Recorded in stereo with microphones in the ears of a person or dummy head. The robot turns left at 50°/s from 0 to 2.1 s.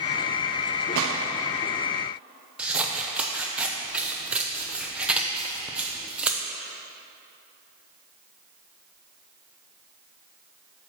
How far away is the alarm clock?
No alarm clock in this recording.